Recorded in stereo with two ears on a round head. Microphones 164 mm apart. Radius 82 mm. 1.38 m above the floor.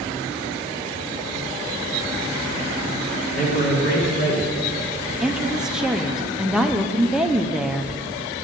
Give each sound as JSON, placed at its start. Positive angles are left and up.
{"t": 3.4, "sound": "a man speaking", "side_deg": 50, "distance_m": 2.5}
{"t": 5.2, "sound": "a woman speaking", "side_deg": -5, "distance_m": 0.6}